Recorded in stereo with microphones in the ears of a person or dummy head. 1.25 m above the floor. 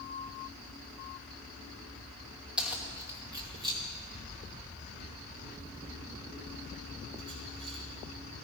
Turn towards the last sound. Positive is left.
turn(degrees=-60)  # may be behind; listen again after turning